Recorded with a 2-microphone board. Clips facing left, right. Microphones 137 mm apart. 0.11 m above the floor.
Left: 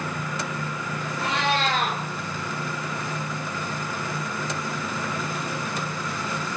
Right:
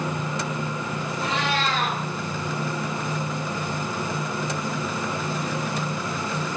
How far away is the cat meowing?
About 2 m.